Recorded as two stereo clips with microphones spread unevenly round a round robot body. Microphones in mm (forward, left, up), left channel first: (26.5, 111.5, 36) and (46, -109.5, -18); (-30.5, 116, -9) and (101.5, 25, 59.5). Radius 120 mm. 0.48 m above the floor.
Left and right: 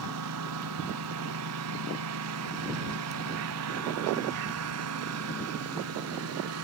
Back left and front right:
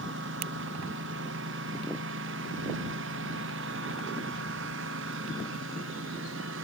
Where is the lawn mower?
75° right; by 6.6 s 70° right.